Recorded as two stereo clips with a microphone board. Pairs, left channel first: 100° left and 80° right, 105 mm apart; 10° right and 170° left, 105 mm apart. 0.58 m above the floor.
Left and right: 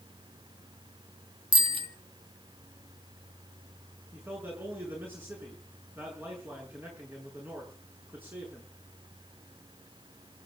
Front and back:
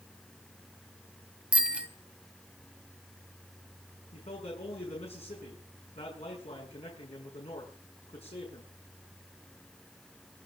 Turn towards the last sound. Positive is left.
turn(degrees=-10)